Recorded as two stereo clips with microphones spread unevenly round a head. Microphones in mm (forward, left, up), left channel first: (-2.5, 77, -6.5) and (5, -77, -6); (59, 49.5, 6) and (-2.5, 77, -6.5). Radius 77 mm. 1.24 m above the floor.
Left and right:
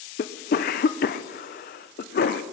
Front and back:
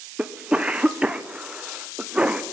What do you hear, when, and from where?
0.2 s a cough: 95° left, 0.6 m